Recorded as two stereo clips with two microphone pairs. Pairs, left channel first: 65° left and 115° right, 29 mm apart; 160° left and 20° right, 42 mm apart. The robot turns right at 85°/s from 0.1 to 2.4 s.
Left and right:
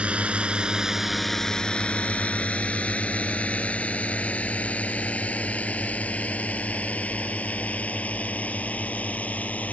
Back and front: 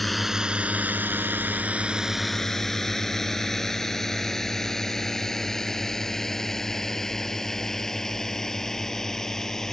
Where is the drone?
120° right; by 9.7 s 80° left.